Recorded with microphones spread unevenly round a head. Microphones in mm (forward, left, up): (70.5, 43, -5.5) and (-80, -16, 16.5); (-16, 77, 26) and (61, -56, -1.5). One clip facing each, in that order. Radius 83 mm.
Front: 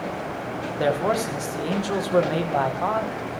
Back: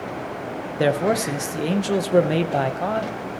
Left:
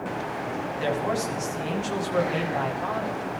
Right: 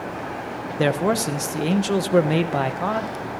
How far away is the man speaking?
About 1.3 m.